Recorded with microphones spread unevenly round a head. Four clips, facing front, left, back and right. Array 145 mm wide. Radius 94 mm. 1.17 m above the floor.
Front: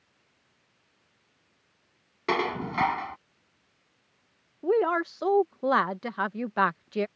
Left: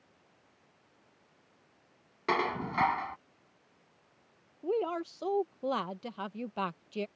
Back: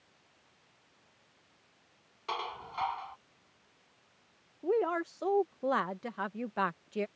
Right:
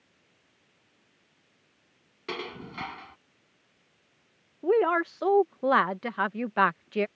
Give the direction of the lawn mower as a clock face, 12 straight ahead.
I don't hear a lawn mower.